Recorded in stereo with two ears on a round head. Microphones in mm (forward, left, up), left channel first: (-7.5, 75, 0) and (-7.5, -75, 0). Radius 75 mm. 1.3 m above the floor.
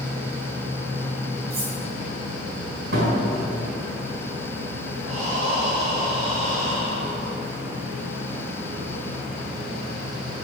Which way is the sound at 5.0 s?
35° right (ahead or behind).